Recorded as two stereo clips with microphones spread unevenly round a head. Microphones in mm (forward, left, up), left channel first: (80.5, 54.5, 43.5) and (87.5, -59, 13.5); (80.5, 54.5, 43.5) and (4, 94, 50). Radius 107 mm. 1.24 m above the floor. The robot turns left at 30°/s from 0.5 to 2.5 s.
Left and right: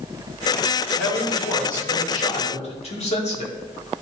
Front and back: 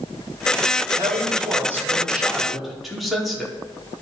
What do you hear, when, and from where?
0.9 s a man speaking: 110° left, 2.5 m; by 3.5 s 65° left, 2.5 m